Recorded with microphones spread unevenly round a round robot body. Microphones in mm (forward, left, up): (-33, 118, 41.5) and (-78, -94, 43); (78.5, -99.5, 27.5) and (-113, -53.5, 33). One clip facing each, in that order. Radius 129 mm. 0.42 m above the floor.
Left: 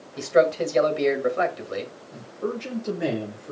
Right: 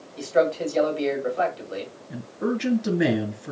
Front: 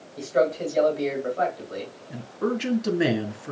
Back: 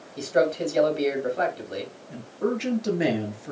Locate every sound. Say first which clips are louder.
0.2 s a man speaking: left 2 dB, even; 100° left, 2.0 m
2.1 s a man speaking: right 4 dB, even; 90° right, 3 m